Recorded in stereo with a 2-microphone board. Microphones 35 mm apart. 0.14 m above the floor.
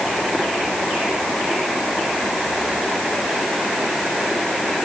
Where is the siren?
No siren in this recording.